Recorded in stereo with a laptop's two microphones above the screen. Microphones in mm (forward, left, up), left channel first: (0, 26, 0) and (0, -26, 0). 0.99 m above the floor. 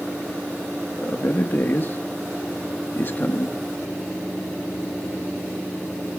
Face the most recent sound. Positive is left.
turn(degrees=45)  # may be behind; listen again after turning